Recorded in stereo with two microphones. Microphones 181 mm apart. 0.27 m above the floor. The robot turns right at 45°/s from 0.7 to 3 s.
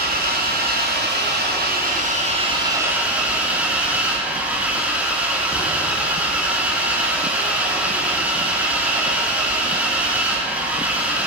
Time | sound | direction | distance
0.0 | an engine running | 110° right | 2.5 m